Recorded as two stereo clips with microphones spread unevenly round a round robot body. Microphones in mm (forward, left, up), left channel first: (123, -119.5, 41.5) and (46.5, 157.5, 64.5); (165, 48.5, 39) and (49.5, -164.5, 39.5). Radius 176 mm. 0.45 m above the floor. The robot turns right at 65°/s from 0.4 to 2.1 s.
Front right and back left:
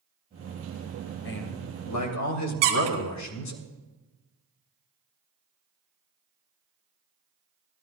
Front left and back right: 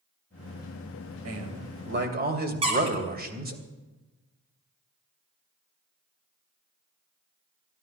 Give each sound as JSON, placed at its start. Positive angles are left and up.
{"t": 1.2, "sound": "a man speaking", "azimuth_deg": -125, "distance_m": 3.0}
{"t": 2.6, "sound": "a squeak", "azimuth_deg": 170, "distance_m": 1.6}